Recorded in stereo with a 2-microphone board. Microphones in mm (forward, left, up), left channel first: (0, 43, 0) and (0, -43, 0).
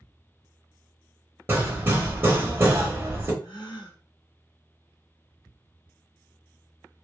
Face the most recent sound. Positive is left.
turn(degrees=80)